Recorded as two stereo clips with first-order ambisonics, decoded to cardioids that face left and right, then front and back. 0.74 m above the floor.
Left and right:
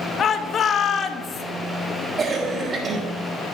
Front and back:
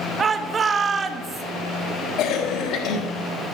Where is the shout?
125° left, 1.2 m.